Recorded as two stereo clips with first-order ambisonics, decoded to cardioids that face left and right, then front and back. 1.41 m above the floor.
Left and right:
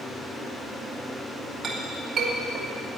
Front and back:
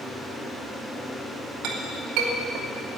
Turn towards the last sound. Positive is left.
turn(degrees=-155)